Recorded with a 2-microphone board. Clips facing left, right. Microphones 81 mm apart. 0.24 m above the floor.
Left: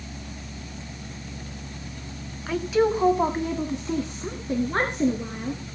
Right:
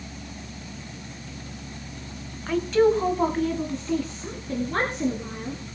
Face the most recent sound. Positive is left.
turn(degrees=25)  # may be behind; listen again after turning